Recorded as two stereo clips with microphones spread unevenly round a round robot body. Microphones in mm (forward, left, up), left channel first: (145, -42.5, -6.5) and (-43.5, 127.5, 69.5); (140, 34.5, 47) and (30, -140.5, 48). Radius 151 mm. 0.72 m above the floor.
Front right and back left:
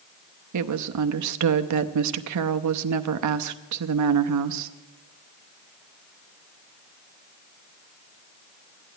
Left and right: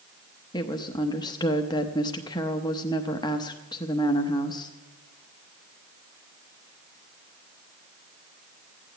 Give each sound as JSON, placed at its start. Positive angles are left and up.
{"t": 0.5, "sound": "a woman speaking", "azimuth_deg": 125, "distance_m": 0.7}